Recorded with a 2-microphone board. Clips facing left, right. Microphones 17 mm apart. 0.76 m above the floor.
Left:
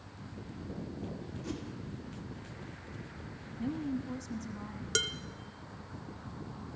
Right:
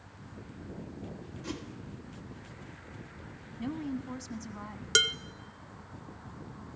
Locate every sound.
1.4 s a whoosh: 20° right (ahead or behind), 2.5 m
3.6 s a woman speaking: 20° right (ahead or behind), 1.1 m
5.0 s dishes clattering: 25° right (ahead or behind), 0.6 m